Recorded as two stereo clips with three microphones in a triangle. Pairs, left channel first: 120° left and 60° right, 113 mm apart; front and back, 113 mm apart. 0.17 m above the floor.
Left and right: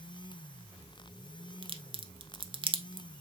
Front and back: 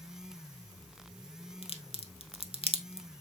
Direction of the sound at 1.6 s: 25° right.